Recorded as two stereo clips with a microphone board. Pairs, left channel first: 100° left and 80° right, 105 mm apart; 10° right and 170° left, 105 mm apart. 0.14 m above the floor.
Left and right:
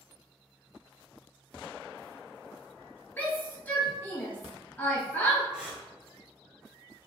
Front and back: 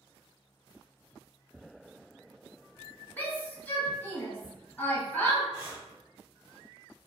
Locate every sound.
3.2 s a shout: 45° left, 1.2 m
5.5 s breathing: 150° right, 1.2 m